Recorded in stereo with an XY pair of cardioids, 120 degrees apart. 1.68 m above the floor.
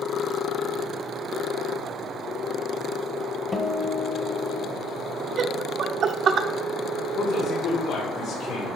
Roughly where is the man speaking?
Ahead left.